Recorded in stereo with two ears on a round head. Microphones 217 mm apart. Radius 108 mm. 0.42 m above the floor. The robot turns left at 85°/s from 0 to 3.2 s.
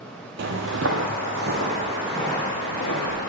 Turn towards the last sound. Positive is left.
turn(degrees=80)